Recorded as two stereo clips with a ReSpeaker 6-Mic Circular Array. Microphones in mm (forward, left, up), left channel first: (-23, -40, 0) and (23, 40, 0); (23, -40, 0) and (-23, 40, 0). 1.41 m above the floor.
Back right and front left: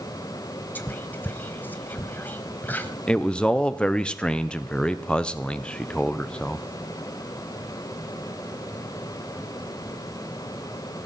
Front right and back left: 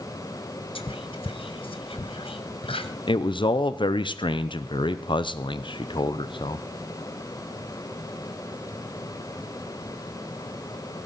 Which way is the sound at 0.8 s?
50° right.